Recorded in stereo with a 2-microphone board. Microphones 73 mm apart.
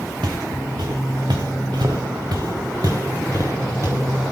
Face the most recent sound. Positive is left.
turn(degrees=-35)  # may be behind; listen again after turning